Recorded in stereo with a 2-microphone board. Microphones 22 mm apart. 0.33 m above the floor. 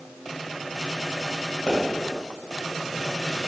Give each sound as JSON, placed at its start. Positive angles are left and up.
{"t": 1.7, "sound": "a pop", "side_deg": 40, "distance_m": 1.7}